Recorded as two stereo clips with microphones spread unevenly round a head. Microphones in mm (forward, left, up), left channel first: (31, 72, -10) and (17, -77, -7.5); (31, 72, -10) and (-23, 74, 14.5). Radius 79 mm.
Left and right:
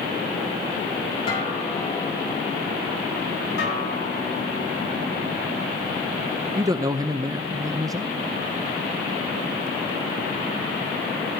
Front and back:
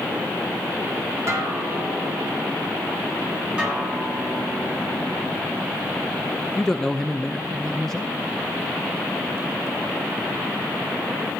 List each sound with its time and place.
1.3 s a guitar: 145° left, 4.5 m
3.6 s a guitar: 105° left, 8.5 m
6.6 s a man speaking: 40° right, 0.6 m